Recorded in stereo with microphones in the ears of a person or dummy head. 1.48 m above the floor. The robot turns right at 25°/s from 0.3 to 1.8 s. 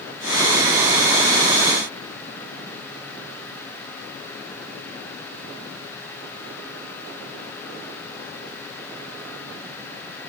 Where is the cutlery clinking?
I don't hear cutlery clinking.